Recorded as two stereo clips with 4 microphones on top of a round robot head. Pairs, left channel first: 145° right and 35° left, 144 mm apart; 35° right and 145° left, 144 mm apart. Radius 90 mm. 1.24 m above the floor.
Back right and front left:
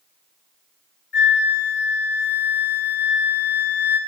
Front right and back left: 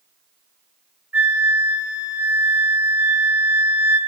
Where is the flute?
140° right, 1.6 m.